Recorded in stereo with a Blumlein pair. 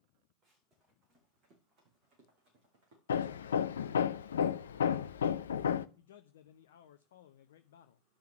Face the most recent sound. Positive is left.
turn(degrees=60)